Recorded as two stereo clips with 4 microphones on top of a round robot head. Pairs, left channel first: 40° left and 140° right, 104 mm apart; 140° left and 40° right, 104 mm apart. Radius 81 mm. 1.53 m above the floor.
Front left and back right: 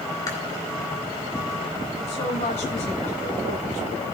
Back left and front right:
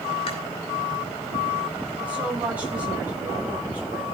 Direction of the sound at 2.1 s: 35° left.